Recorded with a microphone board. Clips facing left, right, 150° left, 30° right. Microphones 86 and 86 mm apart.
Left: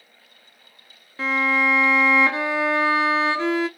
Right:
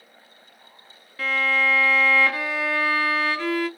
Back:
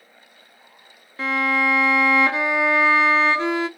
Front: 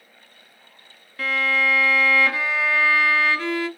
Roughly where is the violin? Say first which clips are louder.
Left 2 dB, back 2 dB; behind left.